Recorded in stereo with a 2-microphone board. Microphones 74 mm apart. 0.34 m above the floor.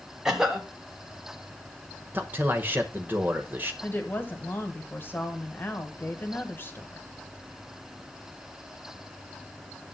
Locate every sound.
0.2 s a cough: 10° right (ahead or behind), 1.8 m
2.1 s a man speaking: 25° right (ahead or behind), 1.1 m
3.8 s a woman speaking: 30° left (ahead or behind), 1.6 m